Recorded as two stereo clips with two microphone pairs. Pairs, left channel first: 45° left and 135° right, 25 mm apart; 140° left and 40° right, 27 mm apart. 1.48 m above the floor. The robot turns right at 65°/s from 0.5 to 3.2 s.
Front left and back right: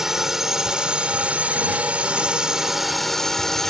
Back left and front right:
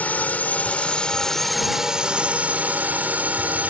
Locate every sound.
0.0 s a drone: 160° left; by 3.7 s 25° right